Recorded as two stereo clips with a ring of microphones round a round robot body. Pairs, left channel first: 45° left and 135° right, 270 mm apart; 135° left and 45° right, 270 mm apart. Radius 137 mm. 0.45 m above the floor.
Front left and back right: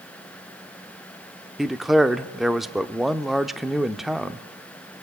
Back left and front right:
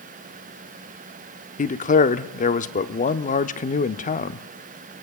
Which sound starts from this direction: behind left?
A man speaking, at 1.6 s.